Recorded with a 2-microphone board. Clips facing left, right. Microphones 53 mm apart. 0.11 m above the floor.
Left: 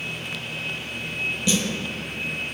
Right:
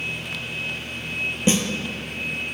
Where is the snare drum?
35° right (ahead or behind), 0.8 m.